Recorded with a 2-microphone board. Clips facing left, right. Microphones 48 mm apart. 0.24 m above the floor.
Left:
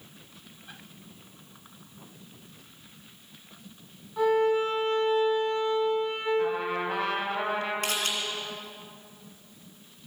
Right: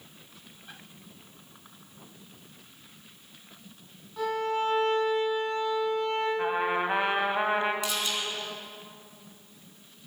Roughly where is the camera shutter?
Left.